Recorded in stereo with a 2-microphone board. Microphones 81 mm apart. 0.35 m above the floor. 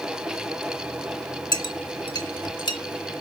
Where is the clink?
60° left (ahead or behind), 1.2 m.